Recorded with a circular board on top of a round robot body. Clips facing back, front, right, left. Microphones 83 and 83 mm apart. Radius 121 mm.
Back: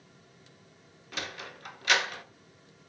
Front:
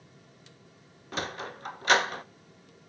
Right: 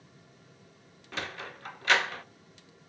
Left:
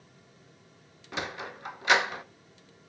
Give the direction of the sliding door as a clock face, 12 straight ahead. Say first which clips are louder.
Front 5 dB, left 3 dB; 11 o'clock.